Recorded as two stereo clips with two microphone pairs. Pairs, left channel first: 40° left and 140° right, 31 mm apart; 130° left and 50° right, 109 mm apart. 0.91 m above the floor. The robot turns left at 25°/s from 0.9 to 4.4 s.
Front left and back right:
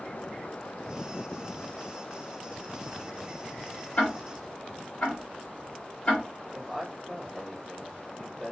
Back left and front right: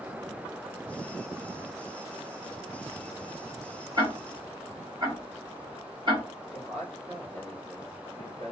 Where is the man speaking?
50° right, 2.5 m.